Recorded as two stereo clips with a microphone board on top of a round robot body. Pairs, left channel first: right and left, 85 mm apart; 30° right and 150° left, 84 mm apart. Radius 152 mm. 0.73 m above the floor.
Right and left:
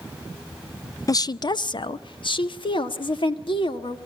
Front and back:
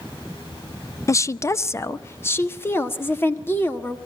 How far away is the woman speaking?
About 0.6 m.